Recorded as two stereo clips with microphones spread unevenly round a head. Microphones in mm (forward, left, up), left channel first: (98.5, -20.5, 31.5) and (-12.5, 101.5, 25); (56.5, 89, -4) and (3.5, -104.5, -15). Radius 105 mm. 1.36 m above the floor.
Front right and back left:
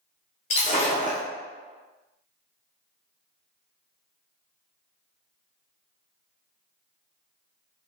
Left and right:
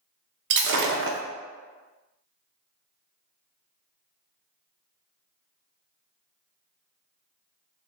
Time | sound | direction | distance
0.5 | breaking glass | 100° right | 0.7 m